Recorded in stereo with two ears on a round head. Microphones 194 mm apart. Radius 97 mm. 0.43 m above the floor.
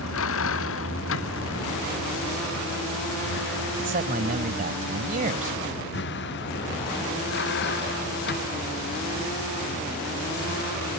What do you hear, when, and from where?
0.0 s a vehicle: 70° left (ahead or behind); by 11.0 s 50° left (ahead or behind)
3.8 s a man speaking: 40° right (ahead or behind)